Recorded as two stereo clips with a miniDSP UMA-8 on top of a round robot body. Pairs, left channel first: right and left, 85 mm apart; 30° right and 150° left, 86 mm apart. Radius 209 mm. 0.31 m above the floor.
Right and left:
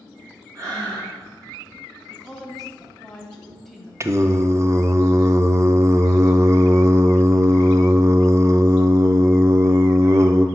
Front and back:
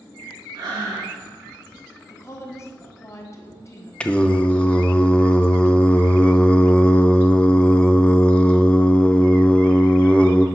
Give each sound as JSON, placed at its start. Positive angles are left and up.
{"t": 0.6, "sound": "breathing", "azimuth_deg": 135, "distance_m": 2.5}
{"t": 2.1, "sound": "a woman speaking", "azimuth_deg": -5, "distance_m": 1.4}
{"t": 4.0, "sound": "singing", "azimuth_deg": 45, "distance_m": 0.6}